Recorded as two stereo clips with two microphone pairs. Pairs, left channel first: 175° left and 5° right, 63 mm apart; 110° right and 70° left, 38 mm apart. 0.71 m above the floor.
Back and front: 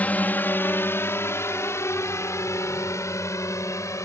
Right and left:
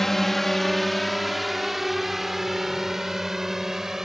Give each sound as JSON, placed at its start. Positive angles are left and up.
{"t": 0.0, "sound": "a drone", "azimuth_deg": 175}